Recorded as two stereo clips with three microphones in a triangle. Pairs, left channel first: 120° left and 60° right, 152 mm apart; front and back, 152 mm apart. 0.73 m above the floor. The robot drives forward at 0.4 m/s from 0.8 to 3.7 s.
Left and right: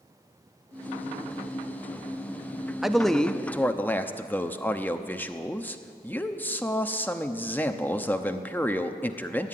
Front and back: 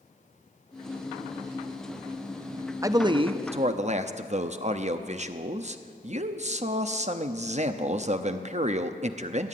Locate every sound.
2.8 s a man speaking: 140° right, 0.6 m; by 9.5 s 165° right, 0.8 m